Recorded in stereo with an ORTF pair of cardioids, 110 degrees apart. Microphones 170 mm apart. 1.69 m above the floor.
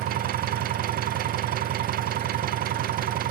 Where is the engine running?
65° right, 0.7 m.